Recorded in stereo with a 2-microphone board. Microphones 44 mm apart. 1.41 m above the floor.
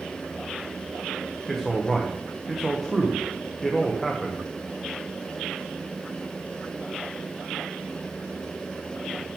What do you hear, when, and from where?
1.5 s a man speaking: 5° left (ahead or behind), 0.9 m